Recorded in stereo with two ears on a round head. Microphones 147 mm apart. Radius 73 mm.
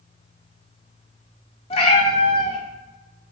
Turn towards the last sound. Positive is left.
turn(degrees=35)  # may be behind; listen again after turning